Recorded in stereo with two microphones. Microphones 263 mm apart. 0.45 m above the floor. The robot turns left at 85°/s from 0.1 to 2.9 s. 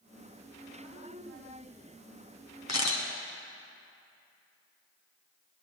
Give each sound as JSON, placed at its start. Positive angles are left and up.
{"t": 2.7, "sound": "a camera shutter", "side_deg": 80, "distance_m": 1.8}